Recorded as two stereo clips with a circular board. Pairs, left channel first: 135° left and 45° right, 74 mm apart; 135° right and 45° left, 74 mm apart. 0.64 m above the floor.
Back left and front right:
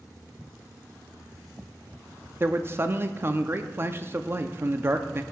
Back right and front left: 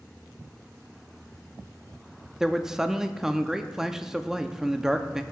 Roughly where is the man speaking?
Ahead right.